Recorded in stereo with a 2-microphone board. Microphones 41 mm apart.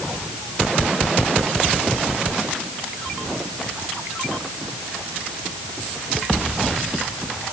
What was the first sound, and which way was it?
Only background noise.